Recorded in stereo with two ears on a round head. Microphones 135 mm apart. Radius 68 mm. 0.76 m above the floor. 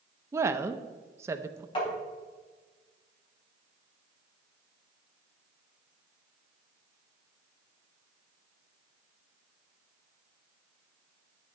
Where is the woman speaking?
20° right (ahead or behind), 0.5 m.